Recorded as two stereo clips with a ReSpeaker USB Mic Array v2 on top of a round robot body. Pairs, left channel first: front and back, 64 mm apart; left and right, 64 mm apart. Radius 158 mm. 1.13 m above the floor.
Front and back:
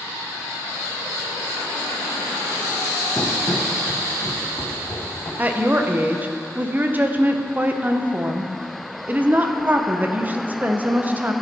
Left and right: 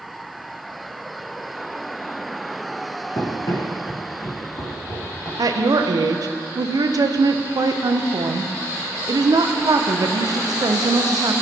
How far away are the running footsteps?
About 1.3 m.